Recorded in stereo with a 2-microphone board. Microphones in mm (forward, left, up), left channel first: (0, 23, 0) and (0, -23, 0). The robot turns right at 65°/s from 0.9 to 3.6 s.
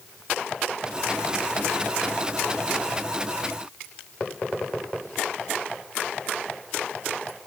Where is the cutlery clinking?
I don't hear cutlery clinking.